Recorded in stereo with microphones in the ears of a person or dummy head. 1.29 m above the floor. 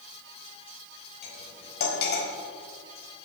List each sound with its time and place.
1.2 s cutlery clinking: 55° left (ahead or behind), 4 m